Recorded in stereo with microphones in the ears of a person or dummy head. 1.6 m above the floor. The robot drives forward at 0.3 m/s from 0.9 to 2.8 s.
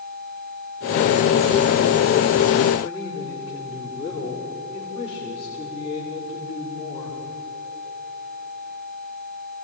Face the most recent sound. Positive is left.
turn(degrees=15)  # may be behind; listen again after turning